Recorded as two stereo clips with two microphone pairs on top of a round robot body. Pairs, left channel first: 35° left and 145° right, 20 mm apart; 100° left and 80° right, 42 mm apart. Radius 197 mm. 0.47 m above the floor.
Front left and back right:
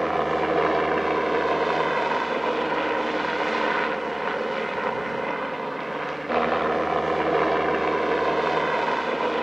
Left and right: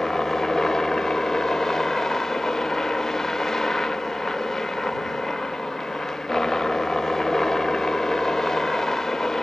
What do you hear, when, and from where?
0.0 s a helicopter: 130° left